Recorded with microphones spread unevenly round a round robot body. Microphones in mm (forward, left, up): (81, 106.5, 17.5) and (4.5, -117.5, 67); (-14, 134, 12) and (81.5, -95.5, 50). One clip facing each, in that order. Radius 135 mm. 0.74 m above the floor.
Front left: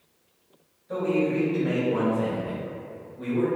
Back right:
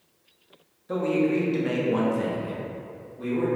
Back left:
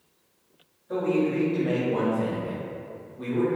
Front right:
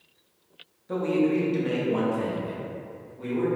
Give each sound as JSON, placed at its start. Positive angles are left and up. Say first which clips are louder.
{"t": 0.9, "sound": "a man speaking", "louder": "back right 1 dB, front right 1 dB", "azimuth_deg": -95, "distance_m": 1.5}